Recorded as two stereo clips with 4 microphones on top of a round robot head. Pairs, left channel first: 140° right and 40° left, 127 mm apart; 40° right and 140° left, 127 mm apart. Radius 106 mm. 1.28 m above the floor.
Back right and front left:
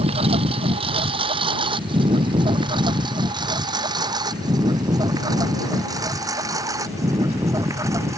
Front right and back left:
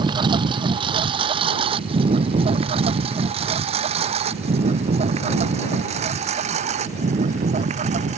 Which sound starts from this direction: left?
A lawn mower, at 0.0 s.